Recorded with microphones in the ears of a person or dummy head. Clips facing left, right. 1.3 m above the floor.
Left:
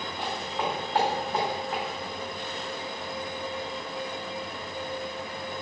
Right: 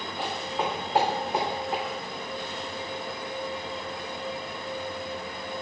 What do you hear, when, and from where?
0.2 s footsteps: 10° right (ahead or behind), 4 m; by 1.8 s 25° right (ahead or behind), 4.5 m